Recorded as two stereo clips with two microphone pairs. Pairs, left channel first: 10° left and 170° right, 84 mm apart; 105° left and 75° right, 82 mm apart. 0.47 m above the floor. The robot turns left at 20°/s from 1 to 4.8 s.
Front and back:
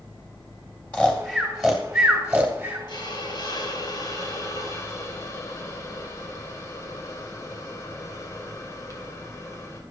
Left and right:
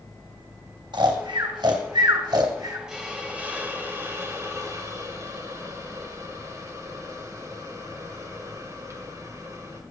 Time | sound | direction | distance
0.9 | snoring | 65° right | 2 m
2.9 | a hiss | 5° left | 2 m